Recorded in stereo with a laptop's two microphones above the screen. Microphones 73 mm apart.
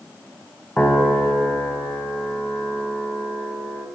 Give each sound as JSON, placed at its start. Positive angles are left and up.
{"t": 0.8, "sound": "a piano", "side_deg": 20, "distance_m": 1.2}